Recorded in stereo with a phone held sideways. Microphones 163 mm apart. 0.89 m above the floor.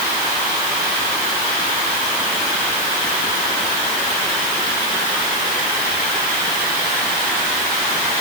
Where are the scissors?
I don't hear scissors.